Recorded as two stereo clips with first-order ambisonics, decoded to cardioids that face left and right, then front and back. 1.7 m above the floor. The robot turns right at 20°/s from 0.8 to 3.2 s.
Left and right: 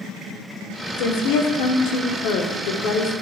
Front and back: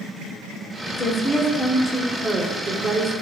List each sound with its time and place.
1.0 s a woman speaking: 75° left, 0.9 m; by 3.1 s 120° left, 0.9 m